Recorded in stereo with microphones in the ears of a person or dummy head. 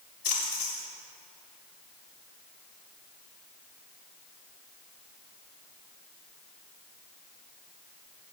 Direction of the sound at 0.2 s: 50° left (ahead or behind).